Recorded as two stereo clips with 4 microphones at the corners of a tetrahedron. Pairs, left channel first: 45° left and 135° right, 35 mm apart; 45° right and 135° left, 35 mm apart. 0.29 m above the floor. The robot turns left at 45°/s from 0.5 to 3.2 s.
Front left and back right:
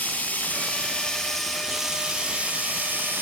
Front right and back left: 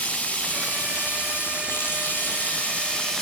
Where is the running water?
Straight ahead, 2.5 m; by 3.2 s 120° right, 2.5 m.